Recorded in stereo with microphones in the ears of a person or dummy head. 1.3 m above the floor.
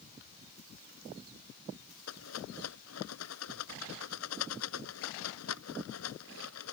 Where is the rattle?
85° left.